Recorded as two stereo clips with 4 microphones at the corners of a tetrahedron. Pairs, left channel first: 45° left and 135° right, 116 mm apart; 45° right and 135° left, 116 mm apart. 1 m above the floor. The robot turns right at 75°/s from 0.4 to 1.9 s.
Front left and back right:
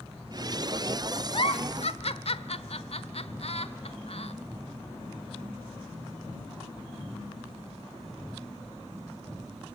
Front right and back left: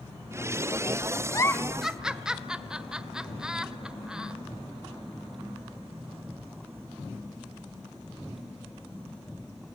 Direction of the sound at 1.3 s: 10° left.